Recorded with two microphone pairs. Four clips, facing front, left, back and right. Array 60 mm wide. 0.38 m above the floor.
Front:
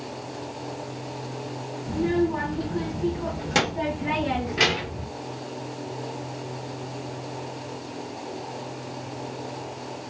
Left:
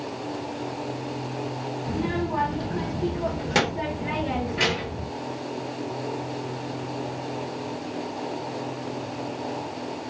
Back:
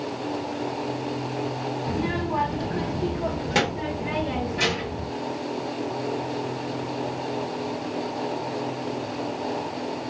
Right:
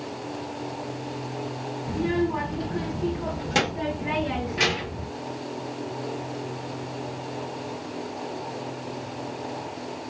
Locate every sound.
1.9 s a child speaking: 150° left, 1.4 m; by 5.1 s 10° left, 1.0 m